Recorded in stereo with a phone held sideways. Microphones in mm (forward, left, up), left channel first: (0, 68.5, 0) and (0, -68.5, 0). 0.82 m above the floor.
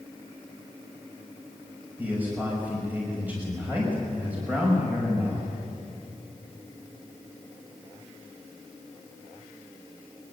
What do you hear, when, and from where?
2.0 s a man speaking: 10° right (ahead or behind), 5.5 m